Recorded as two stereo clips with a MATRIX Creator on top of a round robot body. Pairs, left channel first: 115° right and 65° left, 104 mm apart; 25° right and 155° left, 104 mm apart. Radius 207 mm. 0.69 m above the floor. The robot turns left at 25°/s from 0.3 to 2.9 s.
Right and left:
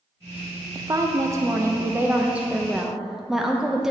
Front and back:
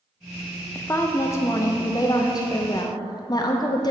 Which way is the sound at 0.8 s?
40° left.